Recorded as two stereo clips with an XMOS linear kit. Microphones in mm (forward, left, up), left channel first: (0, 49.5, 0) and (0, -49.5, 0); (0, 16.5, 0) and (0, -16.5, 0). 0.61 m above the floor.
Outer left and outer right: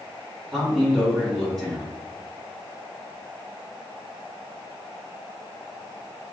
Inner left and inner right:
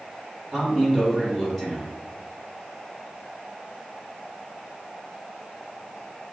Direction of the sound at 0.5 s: 5° left (ahead or behind).